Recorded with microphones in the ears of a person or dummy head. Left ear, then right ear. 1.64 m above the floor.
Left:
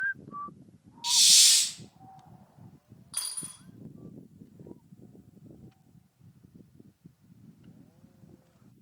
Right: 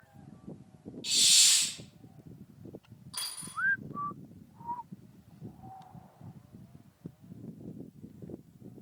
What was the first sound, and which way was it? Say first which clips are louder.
A hiss: left 4 dB; 25° left (ahead or behind).